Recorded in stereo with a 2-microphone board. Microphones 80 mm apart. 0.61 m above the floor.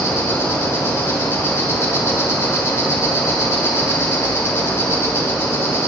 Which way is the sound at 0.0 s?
30° left (ahead or behind).